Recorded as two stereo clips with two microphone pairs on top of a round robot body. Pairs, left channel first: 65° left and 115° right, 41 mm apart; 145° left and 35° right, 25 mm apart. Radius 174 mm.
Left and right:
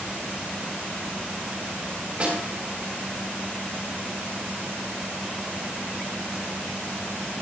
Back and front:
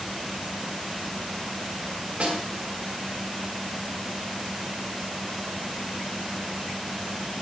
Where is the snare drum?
55° right, 4 m.